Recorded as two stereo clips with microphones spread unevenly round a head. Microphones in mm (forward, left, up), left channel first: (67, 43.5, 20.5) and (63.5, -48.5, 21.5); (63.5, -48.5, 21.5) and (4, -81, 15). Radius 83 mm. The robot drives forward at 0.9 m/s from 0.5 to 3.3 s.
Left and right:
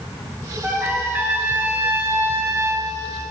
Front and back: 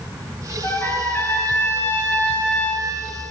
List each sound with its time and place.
0.6 s a trumpet: 20° right, 4.5 m; by 2.9 s 40° right, 2.5 m